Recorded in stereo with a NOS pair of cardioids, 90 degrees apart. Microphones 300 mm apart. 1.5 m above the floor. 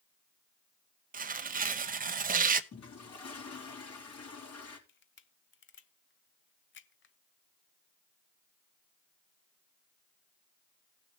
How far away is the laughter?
I don't hear laughter.